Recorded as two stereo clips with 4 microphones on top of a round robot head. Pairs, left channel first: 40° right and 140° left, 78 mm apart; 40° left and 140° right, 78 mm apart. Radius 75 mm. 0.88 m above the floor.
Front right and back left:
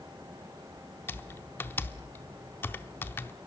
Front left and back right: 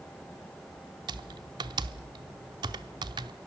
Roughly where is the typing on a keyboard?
Right.